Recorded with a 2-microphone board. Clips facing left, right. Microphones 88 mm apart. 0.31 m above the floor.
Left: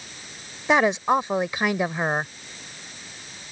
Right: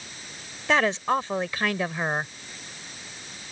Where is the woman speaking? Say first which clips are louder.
Left 3 dB; 15° left (ahead or behind).